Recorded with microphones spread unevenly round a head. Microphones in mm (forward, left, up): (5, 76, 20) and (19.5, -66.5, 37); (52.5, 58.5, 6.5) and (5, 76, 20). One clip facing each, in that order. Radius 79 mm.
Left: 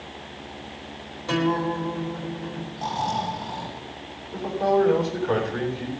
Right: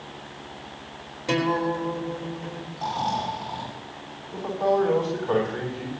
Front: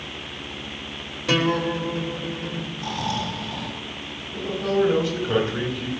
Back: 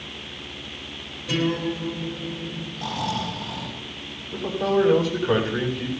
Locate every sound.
1.3 s a guitar: 10° right, 4 m
2.8 s snoring: 170° right, 10 m
4.3 s a man speaking: straight behind, 9.5 m